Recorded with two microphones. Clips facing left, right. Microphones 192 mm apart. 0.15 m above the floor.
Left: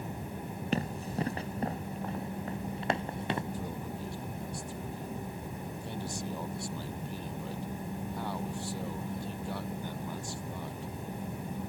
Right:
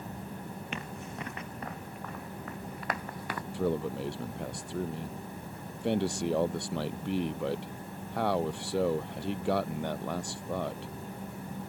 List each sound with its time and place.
0.7 s running footsteps: 35° left (ahead or behind); by 3.4 s 25° left (ahead or behind)
3.5 s a man speaking: 75° right (ahead or behind)